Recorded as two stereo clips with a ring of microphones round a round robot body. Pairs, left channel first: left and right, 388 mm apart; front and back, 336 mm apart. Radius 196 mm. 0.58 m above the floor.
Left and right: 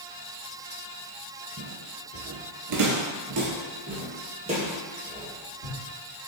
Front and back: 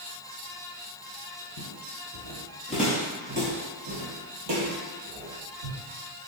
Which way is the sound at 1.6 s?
40° right.